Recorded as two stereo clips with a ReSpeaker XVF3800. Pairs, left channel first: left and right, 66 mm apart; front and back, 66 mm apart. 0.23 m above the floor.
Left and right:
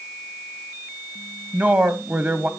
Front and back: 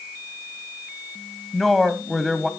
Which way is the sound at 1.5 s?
85° right.